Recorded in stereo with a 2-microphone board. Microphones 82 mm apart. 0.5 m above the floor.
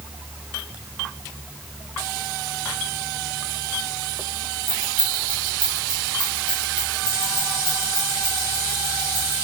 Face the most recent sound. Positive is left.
turn(degrees=85)